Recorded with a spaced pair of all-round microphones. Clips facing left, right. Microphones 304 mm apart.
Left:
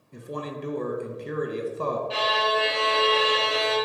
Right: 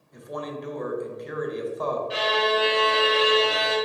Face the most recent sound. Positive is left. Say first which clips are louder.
# right 3 dB
turn(degrees=-20)  # may be behind; listen again after turning